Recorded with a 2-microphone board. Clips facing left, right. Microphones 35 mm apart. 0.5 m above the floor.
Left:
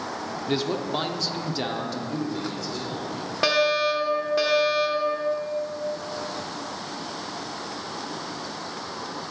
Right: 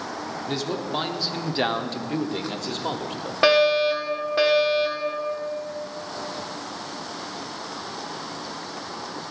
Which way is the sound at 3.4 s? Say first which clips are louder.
Right 4 dB; 15° right (ahead or behind).